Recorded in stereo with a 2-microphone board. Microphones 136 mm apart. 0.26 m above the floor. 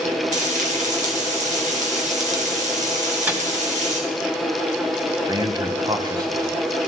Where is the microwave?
15° right (ahead or behind), 1.5 m.